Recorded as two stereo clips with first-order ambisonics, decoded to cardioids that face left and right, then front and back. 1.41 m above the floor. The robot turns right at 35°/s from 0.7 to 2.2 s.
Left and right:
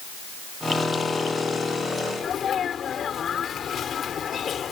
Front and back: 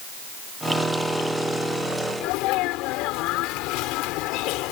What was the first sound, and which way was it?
A sneeze, 25° left.